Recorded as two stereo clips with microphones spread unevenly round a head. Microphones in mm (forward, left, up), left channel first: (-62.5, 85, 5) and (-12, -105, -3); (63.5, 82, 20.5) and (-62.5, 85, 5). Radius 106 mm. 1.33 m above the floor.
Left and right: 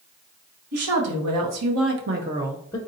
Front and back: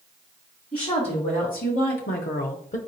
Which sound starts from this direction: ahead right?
A woman speaking, at 0.7 s.